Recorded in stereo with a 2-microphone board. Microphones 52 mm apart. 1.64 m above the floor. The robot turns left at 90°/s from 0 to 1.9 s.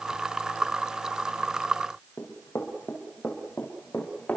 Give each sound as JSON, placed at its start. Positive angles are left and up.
{"t": 2.2, "sound": "running footsteps", "side_deg": 50, "distance_m": 3.5}